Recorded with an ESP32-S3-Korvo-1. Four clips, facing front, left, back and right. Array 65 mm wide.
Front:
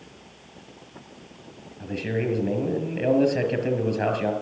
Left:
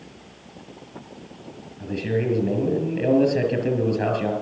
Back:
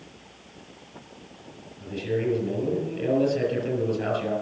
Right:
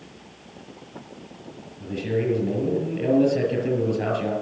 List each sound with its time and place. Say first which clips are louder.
1.8 s a man speaking: left 1 dB, even; 20° left, 6.5 m